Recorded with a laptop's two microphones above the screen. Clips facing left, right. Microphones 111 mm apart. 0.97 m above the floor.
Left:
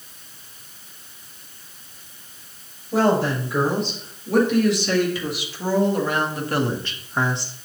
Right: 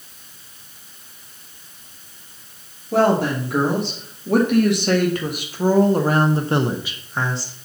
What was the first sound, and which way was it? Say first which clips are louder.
A woman speaking: right 2 dB; 60° right (ahead or behind).